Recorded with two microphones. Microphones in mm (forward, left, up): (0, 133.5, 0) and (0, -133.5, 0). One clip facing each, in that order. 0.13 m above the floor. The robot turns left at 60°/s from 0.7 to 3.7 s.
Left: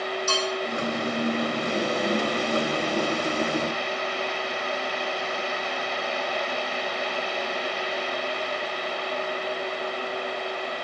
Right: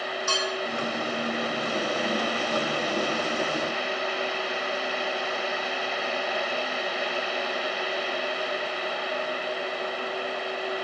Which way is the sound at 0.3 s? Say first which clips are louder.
Left 2 dB; 65° right (ahead or behind).